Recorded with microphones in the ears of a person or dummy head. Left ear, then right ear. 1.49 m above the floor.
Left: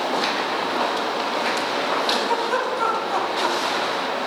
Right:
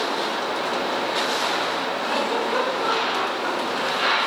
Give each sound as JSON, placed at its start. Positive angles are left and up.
{"t": 2.1, "sound": "a giggle", "side_deg": 65, "distance_m": 4.0}